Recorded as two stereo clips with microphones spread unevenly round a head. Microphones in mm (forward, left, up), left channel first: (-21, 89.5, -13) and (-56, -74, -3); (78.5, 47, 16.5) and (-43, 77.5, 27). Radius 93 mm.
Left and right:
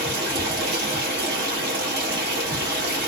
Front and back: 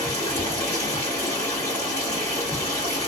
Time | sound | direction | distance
0.0 | running water | 90° right | 1.2 m